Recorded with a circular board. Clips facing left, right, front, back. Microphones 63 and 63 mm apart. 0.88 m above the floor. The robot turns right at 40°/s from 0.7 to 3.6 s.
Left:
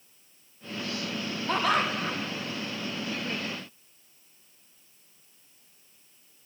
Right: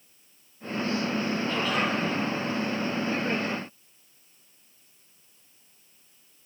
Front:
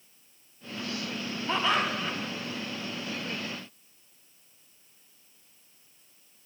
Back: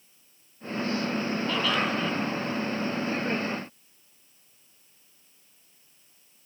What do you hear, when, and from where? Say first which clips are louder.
1.5 s laughter: left 5 dB, front 2 dB; 60° left, 6.5 m; by 2.2 s 85° left, 6.5 m